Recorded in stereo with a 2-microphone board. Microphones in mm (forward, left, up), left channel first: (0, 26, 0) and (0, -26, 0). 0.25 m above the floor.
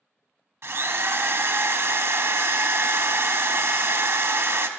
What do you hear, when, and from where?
0.6 s a drill: 60° right (ahead or behind), 0.6 m